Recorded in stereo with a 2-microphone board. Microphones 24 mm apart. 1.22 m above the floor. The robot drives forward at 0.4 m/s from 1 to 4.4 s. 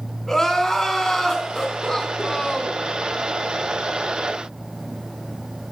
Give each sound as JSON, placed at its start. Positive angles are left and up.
{"t": 0.3, "sound": "crying", "side_deg": 15, "distance_m": 3.0}